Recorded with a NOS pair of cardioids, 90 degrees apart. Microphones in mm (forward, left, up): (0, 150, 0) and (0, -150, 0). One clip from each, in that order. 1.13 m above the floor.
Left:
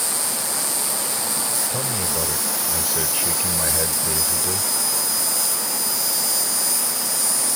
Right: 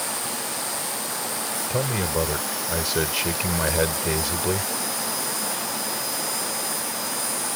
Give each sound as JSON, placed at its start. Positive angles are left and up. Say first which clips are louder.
{"t": 0.0, "sound": "an insect", "louder": "left 3 dB", "azimuth_deg": 55}
{"t": 1.7, "sound": "a man speaking", "louder": "even", "azimuth_deg": -40}